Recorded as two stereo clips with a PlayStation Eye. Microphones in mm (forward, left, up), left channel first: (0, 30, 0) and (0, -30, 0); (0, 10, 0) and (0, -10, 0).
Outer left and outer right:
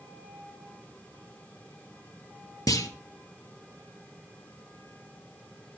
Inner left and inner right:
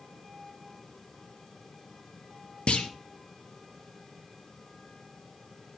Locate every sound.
2.7 s a clunk: 75° left (ahead or behind), 2 m